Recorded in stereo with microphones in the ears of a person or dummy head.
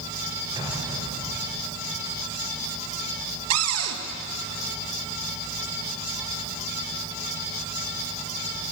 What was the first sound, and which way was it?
An explosion, 20° right (ahead or behind).